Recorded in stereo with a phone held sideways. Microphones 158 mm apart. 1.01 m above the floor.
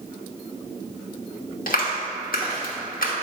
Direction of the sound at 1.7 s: 75° left (ahead or behind).